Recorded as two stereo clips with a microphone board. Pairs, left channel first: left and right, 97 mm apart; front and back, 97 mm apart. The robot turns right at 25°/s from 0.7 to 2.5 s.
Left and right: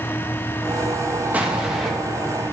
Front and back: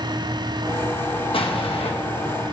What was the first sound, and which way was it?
An explosion, 15° right.